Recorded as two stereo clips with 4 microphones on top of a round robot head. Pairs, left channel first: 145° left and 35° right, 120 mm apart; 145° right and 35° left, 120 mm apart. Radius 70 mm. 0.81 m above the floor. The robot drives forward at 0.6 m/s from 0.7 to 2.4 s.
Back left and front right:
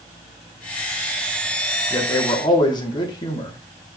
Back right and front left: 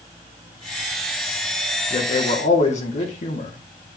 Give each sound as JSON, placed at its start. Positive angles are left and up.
{"t": 1.9, "sound": "a man speaking", "azimuth_deg": -155, "distance_m": 2.0}